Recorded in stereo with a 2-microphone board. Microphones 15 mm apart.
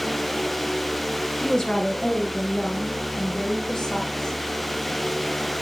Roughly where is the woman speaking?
Left.